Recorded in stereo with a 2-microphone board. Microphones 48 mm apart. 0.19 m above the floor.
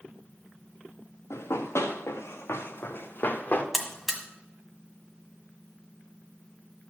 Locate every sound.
1.3 s running footsteps: 85° left, 2.5 m; by 3.6 s 35° left (ahead or behind), 1.8 m
3.7 s a buzzer: 5° left (ahead or behind), 1.5 m